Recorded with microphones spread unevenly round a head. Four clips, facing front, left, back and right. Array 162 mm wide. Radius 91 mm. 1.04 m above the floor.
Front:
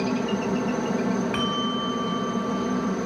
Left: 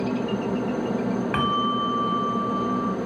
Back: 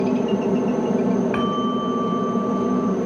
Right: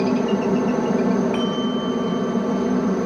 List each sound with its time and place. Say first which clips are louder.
0.0 s a helicopter: right 6 dB, back 5 dB; 140° right
1.3 s a bell: right 1 dB, back 5 dB; 85° left